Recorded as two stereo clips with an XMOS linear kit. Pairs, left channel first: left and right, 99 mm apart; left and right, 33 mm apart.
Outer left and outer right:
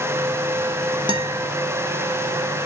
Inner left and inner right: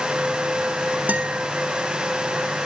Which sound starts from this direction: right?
A guitar, at 1.1 s.